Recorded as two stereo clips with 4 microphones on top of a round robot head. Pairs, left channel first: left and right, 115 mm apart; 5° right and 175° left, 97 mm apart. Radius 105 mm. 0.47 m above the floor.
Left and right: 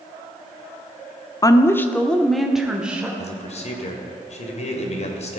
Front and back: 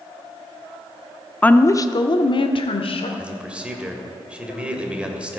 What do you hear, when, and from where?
1.4 s a woman speaking: 65° left, 0.8 m; by 3.1 s 10° right, 1.6 m
3.2 s a man speaking: 100° left, 2 m